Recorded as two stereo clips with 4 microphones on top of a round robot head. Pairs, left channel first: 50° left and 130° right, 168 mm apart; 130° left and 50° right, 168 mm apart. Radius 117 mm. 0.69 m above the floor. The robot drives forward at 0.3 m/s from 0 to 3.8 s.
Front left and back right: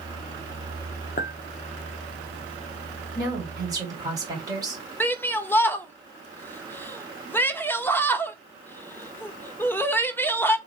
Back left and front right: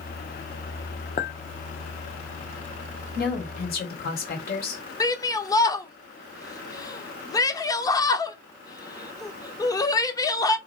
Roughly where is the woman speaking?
Behind.